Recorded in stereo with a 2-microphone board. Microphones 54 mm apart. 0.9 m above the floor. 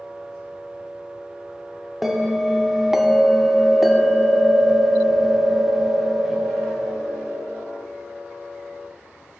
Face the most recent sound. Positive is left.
turn(degrees=-5)  # may be behind; listen again after turning